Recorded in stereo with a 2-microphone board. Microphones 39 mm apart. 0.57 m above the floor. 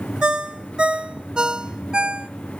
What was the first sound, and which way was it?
A ringtone, 20° right (ahead or behind).